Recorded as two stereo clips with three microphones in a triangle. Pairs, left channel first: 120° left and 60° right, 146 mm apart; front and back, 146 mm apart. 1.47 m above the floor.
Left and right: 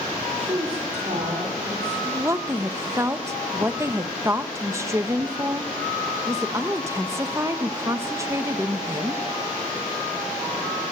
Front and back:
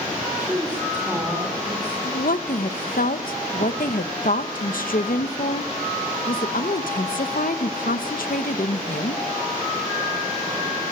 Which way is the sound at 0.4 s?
100° right.